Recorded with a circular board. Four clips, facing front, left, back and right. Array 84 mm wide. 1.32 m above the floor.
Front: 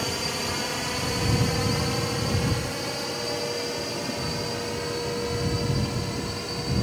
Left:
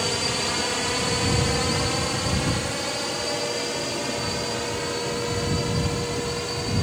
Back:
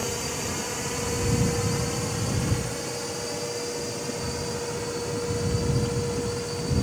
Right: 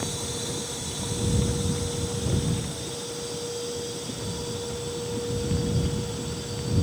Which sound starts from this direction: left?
A drone, at 0.0 s.